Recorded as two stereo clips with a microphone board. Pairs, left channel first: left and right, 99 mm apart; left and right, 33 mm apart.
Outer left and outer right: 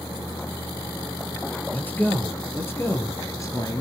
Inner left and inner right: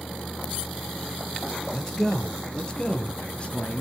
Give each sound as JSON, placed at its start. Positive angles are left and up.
{"t": 1.7, "sound": "a man speaking", "side_deg": 20, "distance_m": 4.0}